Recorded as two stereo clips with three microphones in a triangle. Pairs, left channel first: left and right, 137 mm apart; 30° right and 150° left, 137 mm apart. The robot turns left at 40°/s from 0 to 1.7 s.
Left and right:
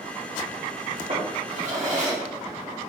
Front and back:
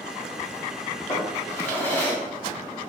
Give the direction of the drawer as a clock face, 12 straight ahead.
3 o'clock.